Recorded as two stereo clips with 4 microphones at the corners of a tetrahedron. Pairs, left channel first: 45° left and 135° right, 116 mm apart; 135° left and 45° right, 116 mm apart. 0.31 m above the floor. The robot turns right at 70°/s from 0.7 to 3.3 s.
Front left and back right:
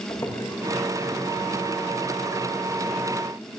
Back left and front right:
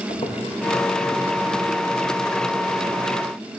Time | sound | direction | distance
0.1 | footsteps | 105° left | 3 m